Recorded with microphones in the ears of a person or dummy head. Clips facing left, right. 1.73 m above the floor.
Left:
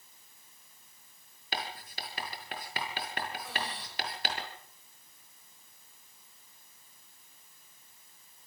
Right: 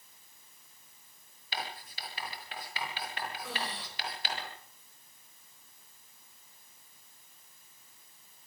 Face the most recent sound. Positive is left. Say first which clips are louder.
# even
turn(degrees=-65)  # may be behind; listen again after turning